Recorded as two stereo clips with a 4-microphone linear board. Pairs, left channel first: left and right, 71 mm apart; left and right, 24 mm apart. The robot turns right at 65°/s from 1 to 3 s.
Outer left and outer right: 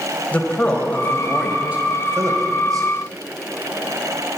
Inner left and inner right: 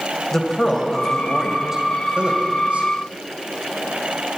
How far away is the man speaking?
About 2.0 m.